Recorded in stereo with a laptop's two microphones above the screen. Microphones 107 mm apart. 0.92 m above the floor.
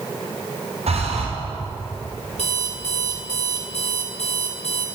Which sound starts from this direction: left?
An alarm clock, at 2.4 s.